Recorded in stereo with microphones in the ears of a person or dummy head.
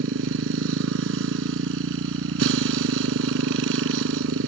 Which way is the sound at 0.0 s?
75° right (ahead or behind).